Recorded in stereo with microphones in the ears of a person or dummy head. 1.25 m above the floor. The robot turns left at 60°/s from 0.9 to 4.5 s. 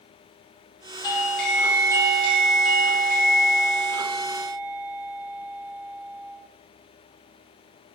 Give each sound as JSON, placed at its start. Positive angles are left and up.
{"t": 1.0, "sound": "a doorbell", "azimuth_deg": 30, "distance_m": 0.7}